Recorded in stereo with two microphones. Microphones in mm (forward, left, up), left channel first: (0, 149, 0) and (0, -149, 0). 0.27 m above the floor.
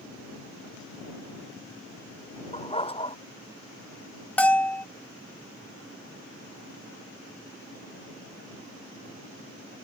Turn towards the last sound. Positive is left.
turn(degrees=5)  # may be behind; listen again after turning